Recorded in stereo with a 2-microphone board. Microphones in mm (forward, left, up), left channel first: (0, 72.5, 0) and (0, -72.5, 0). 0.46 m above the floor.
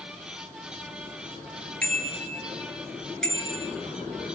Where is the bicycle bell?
10° left (ahead or behind), 6 m; by 3.7 s 5° left (ahead or behind), 4.5 m.